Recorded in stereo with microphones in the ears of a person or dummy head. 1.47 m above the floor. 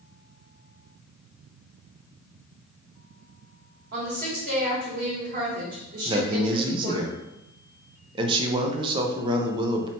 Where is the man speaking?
20° right (ahead or behind), 0.6 m.